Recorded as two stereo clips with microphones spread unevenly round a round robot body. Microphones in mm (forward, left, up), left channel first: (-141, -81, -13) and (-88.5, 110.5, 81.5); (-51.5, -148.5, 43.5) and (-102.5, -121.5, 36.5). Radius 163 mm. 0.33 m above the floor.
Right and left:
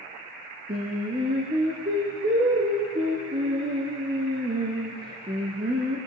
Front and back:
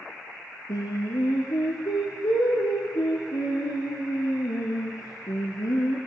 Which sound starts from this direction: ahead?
Singing, at 0.7 s.